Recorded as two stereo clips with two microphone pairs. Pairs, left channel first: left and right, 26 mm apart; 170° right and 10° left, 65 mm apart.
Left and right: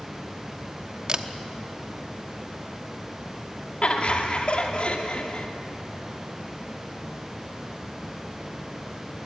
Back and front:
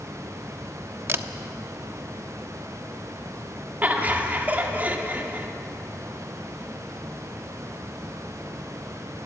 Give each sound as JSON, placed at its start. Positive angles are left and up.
{"t": 1.1, "sound": "a camera shutter", "azimuth_deg": -35, "distance_m": 1.0}
{"t": 3.8, "sound": "laughter", "azimuth_deg": 70, "distance_m": 1.8}